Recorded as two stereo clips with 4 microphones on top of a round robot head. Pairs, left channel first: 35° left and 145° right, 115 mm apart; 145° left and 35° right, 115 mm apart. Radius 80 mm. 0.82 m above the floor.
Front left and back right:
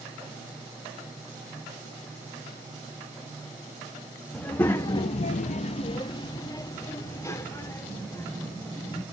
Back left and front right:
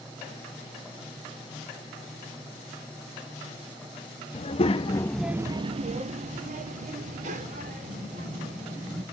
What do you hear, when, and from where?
4.3 s a child speaking: 110° left, 1.0 m; by 9.0 s 35° right, 3.5 m